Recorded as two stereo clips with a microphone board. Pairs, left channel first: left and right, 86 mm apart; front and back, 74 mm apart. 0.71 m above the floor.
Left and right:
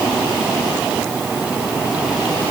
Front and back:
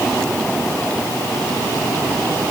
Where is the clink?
No clink in this recording.